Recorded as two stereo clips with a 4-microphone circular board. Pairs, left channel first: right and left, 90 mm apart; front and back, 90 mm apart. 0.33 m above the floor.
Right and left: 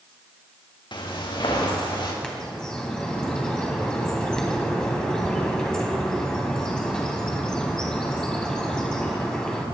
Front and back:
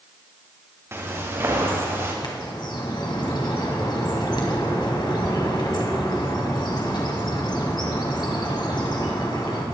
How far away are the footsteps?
About 4 m.